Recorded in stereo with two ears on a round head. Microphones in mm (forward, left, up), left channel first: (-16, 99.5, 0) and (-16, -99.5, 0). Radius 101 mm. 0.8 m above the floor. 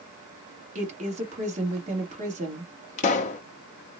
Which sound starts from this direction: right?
A woman speaking, at 0.8 s.